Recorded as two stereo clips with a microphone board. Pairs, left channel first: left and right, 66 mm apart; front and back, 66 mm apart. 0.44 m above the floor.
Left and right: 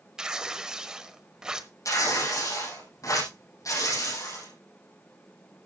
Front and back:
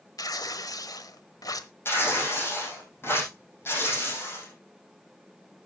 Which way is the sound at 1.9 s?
50° left.